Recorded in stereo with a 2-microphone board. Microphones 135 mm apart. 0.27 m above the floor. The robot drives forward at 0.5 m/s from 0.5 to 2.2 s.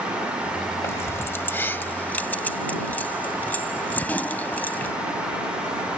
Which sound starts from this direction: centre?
Keys jangling, at 0.8 s.